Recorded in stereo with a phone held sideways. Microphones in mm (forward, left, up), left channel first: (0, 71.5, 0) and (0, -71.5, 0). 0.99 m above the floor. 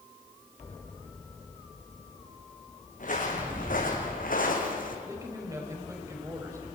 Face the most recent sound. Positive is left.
turn(degrees=-20)  # may be behind; listen again after turning